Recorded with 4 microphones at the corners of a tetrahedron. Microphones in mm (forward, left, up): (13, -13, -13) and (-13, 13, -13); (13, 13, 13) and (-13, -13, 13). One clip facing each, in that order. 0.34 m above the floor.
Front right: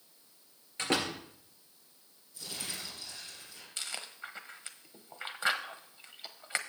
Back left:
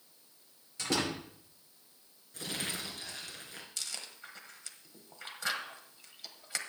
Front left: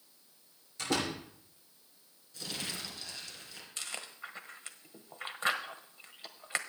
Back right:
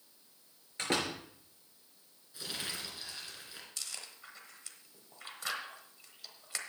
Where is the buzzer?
I don't hear a buzzer.